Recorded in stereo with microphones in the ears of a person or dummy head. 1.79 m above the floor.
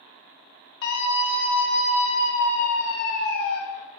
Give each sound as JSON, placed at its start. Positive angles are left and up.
{"t": 0.8, "sound": "a scream", "side_deg": 60, "distance_m": 2.0}